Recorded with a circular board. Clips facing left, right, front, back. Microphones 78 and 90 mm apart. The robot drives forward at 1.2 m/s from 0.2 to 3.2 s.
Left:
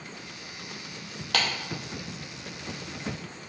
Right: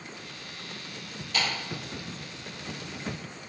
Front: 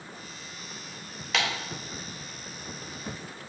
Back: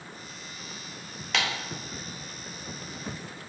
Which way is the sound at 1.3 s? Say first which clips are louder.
Left 2 dB, front 1 dB; 90° left.